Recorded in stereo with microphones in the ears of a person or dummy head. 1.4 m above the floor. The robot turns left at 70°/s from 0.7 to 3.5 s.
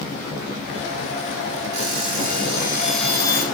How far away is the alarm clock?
About 1.6 m.